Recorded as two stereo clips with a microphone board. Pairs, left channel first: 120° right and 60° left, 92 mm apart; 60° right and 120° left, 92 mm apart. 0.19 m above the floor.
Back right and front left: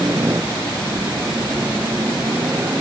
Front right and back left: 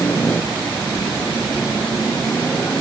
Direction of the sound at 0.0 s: Straight ahead.